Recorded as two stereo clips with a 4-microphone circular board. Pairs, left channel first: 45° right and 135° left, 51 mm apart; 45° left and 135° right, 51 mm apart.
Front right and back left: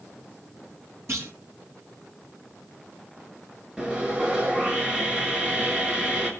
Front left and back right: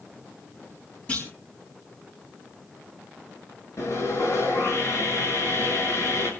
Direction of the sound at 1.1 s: 105° left.